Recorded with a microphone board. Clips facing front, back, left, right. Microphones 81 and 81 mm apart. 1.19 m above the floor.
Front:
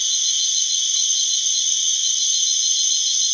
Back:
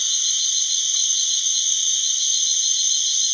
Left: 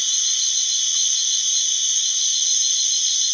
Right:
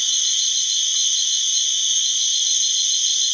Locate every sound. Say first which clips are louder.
0.0 s an insect: front 2 dB, right 3 dB; 155° left, 0.9 m